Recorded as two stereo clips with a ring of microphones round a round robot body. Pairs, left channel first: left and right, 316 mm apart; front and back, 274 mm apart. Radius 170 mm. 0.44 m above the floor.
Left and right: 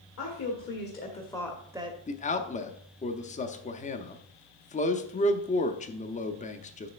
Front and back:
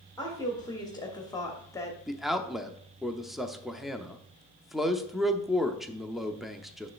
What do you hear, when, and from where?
0.2 s a woman speaking: 75° left, 1.7 m; by 2.0 s 65° right, 1.2 m
2.1 s a man speaking: 90° left, 0.7 m